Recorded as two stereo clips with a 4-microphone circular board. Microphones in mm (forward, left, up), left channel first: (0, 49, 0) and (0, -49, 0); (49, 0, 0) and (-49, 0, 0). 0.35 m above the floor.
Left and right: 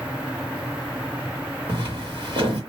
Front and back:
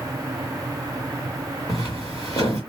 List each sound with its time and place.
1.7 s footsteps: 55° right, 1.6 m